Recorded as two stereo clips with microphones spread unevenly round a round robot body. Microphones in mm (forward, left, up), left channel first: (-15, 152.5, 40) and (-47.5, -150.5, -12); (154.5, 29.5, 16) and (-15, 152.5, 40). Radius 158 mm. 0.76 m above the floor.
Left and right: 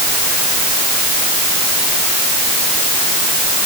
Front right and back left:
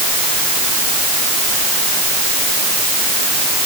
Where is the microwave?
I don't hear a microwave.